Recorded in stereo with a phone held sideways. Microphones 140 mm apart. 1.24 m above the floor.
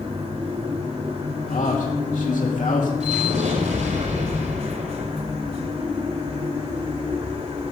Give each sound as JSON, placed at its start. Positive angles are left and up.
{"t": 0.0, "sound": "a machine running", "side_deg": -45, "distance_m": 1.5}
{"t": 1.5, "sound": "a man speaking", "side_deg": 65, "distance_m": 2.5}
{"t": 3.0, "sound": "an explosion", "side_deg": -65, "distance_m": 4.0}